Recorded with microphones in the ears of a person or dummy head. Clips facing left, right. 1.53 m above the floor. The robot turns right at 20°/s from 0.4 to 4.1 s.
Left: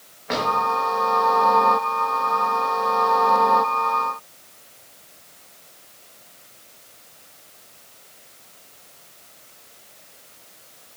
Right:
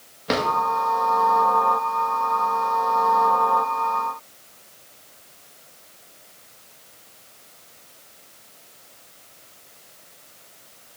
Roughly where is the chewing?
No chewing in this recording.